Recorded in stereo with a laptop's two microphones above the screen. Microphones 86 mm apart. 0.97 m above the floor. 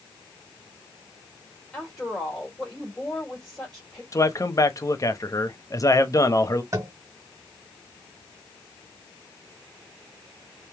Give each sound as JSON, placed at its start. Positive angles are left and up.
{"t": 1.7, "sound": "a woman speaking", "side_deg": 10, "distance_m": 1.7}
{"t": 4.1, "sound": "a man speaking", "side_deg": 40, "distance_m": 0.8}
{"t": 6.7, "sound": "tapping", "side_deg": -35, "distance_m": 1.5}